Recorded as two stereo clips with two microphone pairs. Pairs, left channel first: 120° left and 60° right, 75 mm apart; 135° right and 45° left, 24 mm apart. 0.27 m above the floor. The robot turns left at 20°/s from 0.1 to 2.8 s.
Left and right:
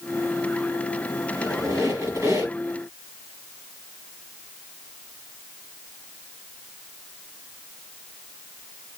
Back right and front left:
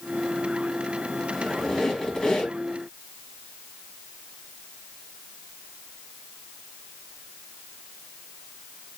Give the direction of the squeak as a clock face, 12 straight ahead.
2 o'clock.